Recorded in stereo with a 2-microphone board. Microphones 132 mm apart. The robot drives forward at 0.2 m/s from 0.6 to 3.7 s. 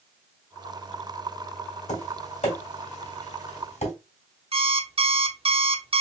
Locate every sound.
1.9 s tapping: 65° left (ahead or behind), 2.5 m
4.5 s an alarm clock: 50° right (ahead or behind), 0.6 m